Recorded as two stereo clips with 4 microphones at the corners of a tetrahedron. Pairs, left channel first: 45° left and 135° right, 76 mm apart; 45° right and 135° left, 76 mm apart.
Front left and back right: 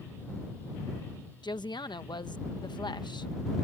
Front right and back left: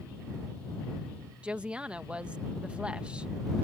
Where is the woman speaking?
60° left.